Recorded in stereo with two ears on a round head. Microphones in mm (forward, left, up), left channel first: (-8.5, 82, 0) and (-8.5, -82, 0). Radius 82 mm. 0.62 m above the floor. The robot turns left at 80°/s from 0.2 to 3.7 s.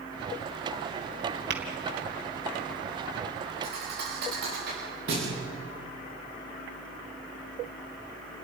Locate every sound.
1.5 s tapping: 55° right (ahead or behind), 3 m; by 1.6 s 65° right (ahead or behind), 3 m
3.6 s a thud: 70° right (ahead or behind), 8 m; by 5.3 s 60° right (ahead or behind), 8 m